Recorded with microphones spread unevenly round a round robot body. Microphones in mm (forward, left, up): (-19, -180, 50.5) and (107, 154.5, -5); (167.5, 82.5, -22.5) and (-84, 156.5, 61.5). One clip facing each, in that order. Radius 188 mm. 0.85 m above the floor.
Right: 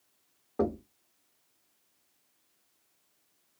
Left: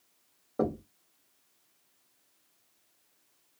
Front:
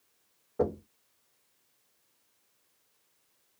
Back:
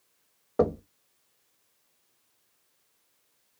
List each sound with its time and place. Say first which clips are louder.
0.6 s knocking: right 1 dB, back 5 dB; 170° left, 0.6 m